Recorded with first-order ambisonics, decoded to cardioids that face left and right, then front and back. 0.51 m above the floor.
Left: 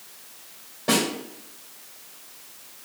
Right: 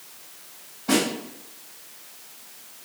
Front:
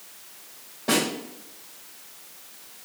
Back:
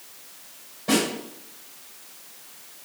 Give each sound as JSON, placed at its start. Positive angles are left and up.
{"t": 0.9, "sound": "a snare drum", "azimuth_deg": 70, "distance_m": 2.0}